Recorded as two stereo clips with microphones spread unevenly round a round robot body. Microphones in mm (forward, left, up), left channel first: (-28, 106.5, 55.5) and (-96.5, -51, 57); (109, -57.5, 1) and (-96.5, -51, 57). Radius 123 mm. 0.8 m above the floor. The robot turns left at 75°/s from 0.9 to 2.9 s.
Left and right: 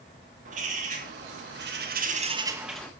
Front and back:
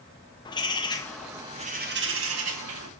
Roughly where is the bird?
Ahead right.